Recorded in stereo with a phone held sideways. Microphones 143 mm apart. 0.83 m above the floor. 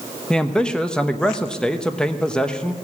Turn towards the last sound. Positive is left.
turn(degrees=5)  # may be behind; listen again after turning